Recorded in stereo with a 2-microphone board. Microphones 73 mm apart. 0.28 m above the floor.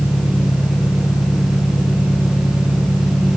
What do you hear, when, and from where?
0.0 s an engine running: 65° left (ahead or behind)